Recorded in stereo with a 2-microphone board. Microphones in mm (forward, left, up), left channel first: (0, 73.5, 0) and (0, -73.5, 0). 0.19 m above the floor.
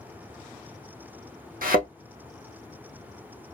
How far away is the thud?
About 2.5 m.